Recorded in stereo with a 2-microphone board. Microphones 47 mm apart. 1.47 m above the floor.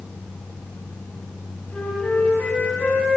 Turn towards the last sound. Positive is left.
turn(degrees=30)  # may be behind; listen again after turning